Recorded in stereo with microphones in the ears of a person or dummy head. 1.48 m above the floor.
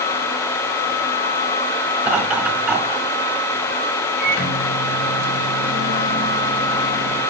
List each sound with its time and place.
2.0 s laughter: 10° right (ahead or behind), 10 m
4.2 s a microwave: 65° left (ahead or behind), 7.5 m